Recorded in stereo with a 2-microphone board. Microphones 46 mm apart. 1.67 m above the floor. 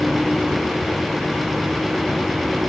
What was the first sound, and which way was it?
Only background noise.